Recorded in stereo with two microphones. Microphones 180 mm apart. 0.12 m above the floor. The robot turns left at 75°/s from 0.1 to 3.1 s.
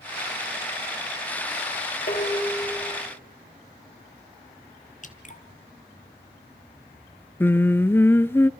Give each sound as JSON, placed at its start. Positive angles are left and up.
{"t": 2.1, "sound": "dishes clattering", "azimuth_deg": 55, "distance_m": 7.5}
{"t": 5.0, "sound": "dripping", "side_deg": 45, "distance_m": 1.3}
{"t": 7.4, "sound": "singing", "side_deg": 10, "distance_m": 0.5}